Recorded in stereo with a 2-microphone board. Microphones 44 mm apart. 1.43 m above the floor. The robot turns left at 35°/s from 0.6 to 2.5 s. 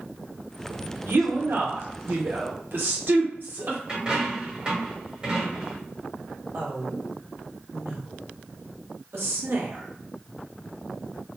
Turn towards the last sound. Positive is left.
turn(degrees=-70)  # may be behind; listen again after turning